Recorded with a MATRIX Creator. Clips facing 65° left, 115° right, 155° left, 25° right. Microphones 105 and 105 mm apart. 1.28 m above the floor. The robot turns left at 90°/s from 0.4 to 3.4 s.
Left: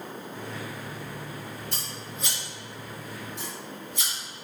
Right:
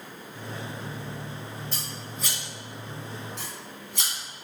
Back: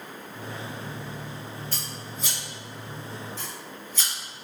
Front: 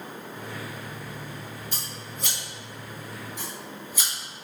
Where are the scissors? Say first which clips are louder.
Even, back 1 dB; 50° left, 2.5 m; by 4.1 s 100° right, 2.5 m.